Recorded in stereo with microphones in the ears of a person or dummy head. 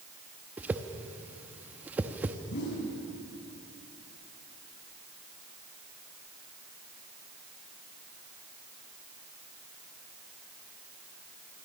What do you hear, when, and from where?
0.6 s a whoosh: 10° right (ahead or behind), 0.9 m
2.5 s a whoosh: 65° left (ahead or behind), 5 m